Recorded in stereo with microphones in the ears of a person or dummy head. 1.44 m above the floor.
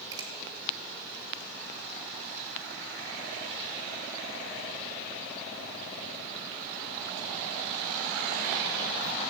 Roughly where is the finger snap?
Right.